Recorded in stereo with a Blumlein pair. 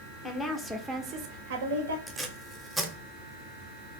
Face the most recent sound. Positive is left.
turn(degrees=0)